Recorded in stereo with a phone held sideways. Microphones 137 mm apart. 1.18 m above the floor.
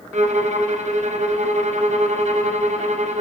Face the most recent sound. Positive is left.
turn(degrees=-55)  # may be behind; listen again after turning